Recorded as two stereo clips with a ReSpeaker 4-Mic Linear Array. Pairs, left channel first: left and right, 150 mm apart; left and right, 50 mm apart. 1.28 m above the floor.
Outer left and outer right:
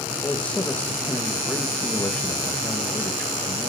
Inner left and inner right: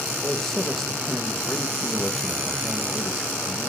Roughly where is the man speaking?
Centre.